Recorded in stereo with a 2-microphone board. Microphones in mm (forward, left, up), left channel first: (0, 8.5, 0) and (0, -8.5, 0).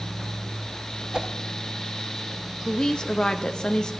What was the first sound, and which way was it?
A whoosh, 40° right (ahead or behind).